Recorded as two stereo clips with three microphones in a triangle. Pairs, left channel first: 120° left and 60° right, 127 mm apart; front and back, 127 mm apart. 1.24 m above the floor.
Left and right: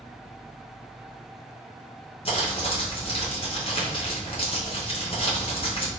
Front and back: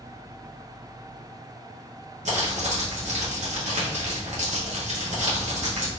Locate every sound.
2.2 s crumpling: 160° left, 1.0 m